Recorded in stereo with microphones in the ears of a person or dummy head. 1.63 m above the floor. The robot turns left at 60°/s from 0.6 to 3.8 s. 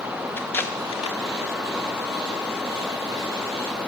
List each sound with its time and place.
0.4 s tape being pulled: 10° left (ahead or behind), 1.3 m; by 1.2 s 40° left (ahead or behind), 1.3 m